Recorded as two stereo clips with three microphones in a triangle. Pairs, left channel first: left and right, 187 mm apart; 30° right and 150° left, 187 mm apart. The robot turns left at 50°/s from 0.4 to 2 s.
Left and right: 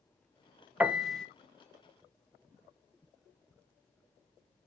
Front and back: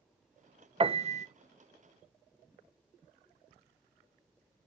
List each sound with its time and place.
0.8 s a piano: 165° right, 0.6 m; by 1.3 s 170° left, 0.6 m